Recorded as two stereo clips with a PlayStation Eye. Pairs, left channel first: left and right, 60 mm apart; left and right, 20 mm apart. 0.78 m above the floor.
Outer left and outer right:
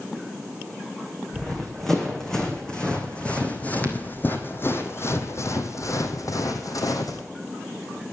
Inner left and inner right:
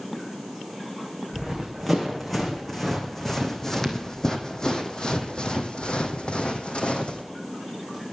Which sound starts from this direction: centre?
Running footsteps, at 1.3 s.